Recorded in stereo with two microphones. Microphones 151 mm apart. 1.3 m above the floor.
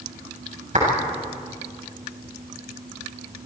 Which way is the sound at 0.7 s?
55° right (ahead or behind).